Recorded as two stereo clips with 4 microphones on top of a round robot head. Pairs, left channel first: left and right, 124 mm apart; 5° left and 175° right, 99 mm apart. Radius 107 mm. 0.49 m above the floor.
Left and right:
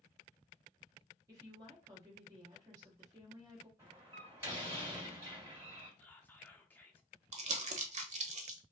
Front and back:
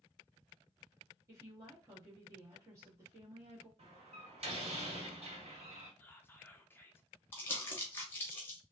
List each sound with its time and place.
1.3 s a woman speaking: 140° right, 1.1 m
3.8 s a door slam: 165° right, 1.6 m
6.0 s whispering: 35° left, 0.7 m
7.3 s crumpling: 65° right, 0.7 m